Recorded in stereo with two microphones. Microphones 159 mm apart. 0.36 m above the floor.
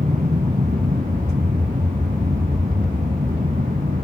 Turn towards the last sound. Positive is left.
turn(degrees=-60)  # may be behind; listen again after turning